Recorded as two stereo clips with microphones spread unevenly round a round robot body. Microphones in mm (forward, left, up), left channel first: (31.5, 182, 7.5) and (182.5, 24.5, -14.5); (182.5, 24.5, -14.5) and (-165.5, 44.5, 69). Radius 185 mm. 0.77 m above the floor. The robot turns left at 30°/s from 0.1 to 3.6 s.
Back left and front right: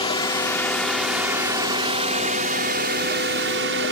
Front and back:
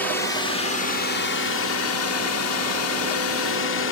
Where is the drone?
70° left; by 3.9 s 35° right.